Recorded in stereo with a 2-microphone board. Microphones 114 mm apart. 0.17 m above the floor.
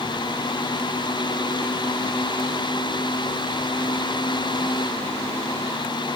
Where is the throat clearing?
No throat clearing in this recording.